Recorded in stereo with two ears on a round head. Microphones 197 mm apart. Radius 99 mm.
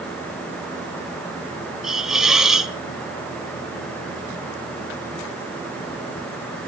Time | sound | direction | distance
1.8 | a hiss | centre (ahead or behind) | 1.1 m